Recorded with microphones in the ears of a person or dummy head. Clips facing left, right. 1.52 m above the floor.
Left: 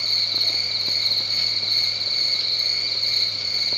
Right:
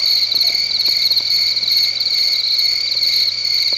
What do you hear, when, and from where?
0.0 s an insect: 40° right (ahead or behind), 0.9 m